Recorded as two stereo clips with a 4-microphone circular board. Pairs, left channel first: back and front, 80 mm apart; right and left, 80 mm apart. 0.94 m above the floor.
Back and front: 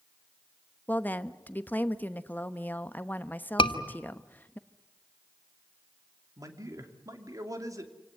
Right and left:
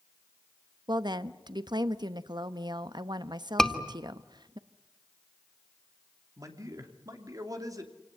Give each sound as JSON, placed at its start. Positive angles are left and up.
{"t": 0.9, "sound": "a woman speaking", "azimuth_deg": 115, "distance_m": 1.0}
{"t": 3.6, "sound": "a scream", "azimuth_deg": -175, "distance_m": 2.0}
{"t": 6.4, "sound": "a man speaking", "azimuth_deg": 45, "distance_m": 2.5}